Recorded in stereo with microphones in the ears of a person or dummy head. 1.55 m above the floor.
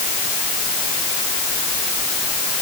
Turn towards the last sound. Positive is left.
No sound to turn to.